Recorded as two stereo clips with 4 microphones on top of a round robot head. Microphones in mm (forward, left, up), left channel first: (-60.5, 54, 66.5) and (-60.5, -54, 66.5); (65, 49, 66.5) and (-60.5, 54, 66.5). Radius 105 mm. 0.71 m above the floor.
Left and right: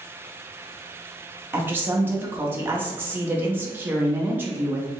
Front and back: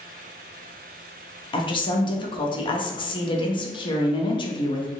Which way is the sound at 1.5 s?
30° right.